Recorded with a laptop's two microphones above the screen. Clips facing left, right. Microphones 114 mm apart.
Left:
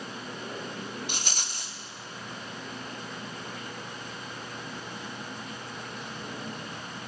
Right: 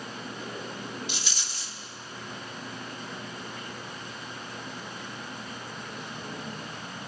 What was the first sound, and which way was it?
A rattle, 50° left (ahead or behind).